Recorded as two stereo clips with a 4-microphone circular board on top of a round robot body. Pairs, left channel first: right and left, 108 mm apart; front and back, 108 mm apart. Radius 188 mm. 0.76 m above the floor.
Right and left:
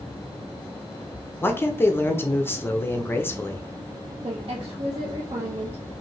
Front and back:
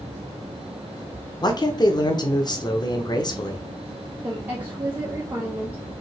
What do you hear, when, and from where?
1.4 s a man speaking: 30° right, 0.8 m
4.2 s a woman speaking: 105° left, 1.1 m